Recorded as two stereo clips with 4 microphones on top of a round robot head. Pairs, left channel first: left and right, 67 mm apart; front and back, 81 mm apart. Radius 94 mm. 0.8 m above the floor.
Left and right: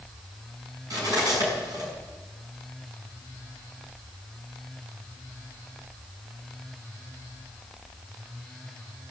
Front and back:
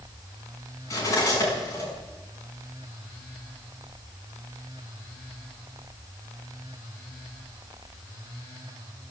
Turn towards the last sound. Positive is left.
turn(degrees=-55)